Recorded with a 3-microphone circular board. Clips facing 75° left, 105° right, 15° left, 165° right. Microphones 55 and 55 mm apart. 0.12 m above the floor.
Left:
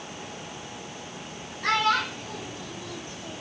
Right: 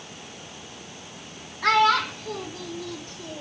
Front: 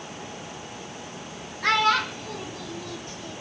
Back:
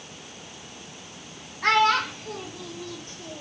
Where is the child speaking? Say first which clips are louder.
Right 4 dB, back 1 dB; 120° right, 3 m; by 3.4 s 105° right, 4 m.